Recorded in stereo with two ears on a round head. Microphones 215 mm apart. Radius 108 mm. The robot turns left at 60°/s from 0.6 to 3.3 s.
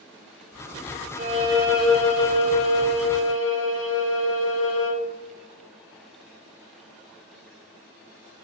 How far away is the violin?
About 0.8 m.